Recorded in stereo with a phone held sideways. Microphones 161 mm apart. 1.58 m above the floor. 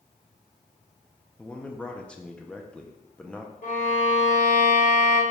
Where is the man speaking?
5° left (ahead or behind), 0.6 m.